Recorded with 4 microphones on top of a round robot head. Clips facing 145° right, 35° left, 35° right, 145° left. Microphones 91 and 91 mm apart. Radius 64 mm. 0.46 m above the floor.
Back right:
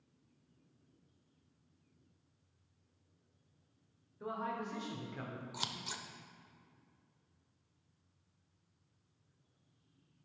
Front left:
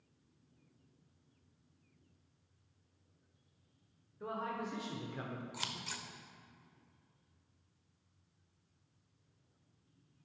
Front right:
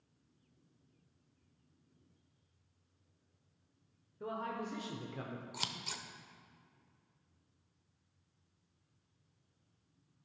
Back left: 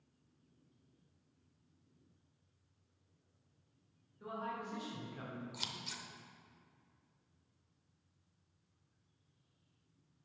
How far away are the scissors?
About 0.7 m.